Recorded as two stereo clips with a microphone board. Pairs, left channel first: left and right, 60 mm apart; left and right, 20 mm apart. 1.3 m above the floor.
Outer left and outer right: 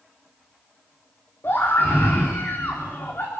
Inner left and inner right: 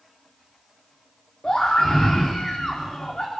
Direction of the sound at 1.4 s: 40° left (ahead or behind).